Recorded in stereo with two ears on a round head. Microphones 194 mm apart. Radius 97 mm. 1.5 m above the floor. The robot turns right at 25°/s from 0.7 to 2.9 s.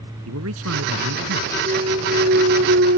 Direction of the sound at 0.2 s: 75° right (ahead or behind).